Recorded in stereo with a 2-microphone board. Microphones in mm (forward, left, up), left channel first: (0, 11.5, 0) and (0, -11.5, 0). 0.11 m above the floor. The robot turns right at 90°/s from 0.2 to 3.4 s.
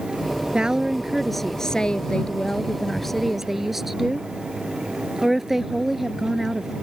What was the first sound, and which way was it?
A woman speaking, 65° right.